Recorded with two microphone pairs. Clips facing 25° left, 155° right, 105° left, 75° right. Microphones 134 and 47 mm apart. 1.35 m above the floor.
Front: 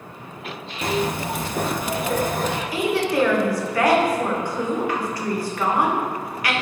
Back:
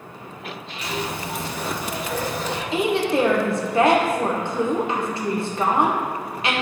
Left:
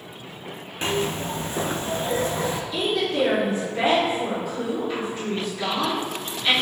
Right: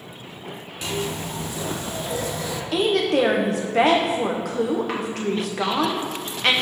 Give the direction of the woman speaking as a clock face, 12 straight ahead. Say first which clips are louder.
Back 2 dB, right 7 dB; 3 o'clock.